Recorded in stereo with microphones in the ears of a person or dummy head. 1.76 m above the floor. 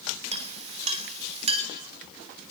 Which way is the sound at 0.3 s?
35° right (ahead or behind).